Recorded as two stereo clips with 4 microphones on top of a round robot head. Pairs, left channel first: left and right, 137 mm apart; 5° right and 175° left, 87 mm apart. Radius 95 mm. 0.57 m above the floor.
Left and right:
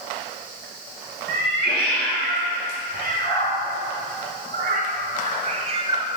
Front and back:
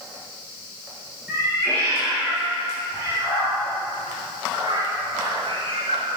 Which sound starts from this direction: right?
A cat meowing, at 1.3 s.